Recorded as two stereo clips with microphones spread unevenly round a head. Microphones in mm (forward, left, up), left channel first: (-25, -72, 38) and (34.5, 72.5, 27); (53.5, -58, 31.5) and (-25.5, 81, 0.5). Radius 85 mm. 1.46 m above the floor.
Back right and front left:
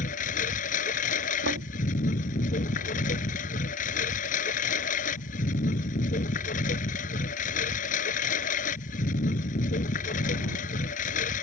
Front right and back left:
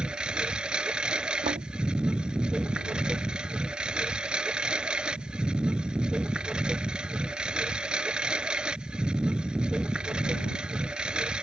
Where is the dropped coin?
No dropped coin in this recording.